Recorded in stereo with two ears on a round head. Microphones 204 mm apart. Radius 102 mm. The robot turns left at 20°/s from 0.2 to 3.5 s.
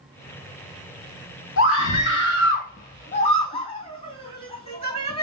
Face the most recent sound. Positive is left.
turn(degrees=25)  # may be behind; listen again after turning